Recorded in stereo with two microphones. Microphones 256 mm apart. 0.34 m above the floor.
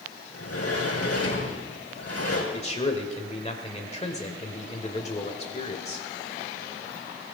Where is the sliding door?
75° left (ahead or behind), 4.5 m.